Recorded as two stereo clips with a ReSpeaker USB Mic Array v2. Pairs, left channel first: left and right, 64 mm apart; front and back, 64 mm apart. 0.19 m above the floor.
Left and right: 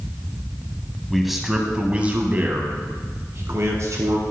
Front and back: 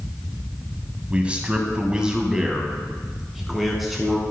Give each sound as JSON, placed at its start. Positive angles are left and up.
{"t": 1.1, "sound": "a man speaking", "azimuth_deg": 175, "distance_m": 1.2}